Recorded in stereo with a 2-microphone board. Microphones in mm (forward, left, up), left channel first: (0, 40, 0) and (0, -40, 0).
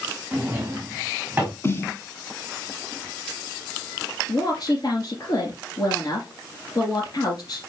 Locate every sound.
0.3 s a drawer: 15° right (ahead or behind), 4 m
1.6 s a snare drum: 30° left (ahead or behind), 1.6 m
4.3 s a woman speaking: 60° left (ahead or behind), 3.5 m